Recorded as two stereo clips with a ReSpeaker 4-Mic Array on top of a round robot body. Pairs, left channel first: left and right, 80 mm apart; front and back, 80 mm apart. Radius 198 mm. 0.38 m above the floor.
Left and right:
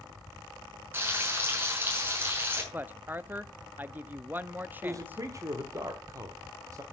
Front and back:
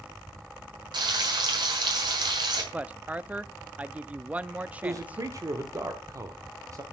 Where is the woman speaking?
125° right, 0.9 m.